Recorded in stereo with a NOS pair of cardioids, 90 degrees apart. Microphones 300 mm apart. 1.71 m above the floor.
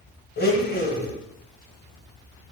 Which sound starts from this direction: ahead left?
A blender, at 0.4 s.